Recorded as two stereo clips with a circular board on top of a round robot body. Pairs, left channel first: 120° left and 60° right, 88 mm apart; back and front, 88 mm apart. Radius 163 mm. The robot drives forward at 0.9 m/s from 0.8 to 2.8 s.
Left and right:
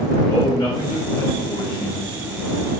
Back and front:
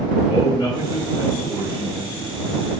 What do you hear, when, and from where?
0.3 s a man speaking: 125° left, 1.8 m; by 2.3 s 150° left, 3 m